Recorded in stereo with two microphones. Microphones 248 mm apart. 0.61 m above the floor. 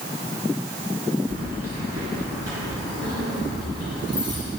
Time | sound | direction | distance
1.3 | keys jangling | 65° right (ahead or behind) | 5.5 m